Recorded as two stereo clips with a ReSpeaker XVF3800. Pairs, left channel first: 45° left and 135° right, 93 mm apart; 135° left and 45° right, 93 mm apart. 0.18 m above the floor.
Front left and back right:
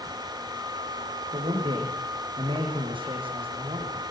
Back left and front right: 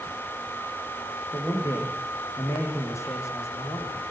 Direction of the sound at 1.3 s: 165° right.